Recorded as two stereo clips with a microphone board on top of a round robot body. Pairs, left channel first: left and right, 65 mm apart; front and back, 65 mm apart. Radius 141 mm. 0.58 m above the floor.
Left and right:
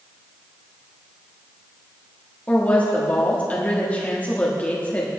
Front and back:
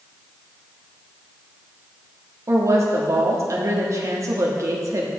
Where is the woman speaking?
155° left, 1.6 m.